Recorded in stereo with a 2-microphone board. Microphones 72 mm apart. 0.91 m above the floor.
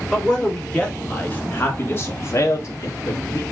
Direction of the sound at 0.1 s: 15° left (ahead or behind).